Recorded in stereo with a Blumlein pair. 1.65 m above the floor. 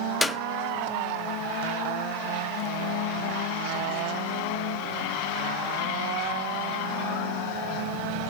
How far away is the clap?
About 0.8 m.